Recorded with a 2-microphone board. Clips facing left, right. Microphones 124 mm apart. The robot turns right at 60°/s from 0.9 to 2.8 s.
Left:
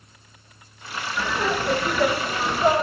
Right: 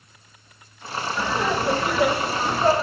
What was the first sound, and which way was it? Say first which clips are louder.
Laughter: right 1 dB; 15° right (ahead or behind).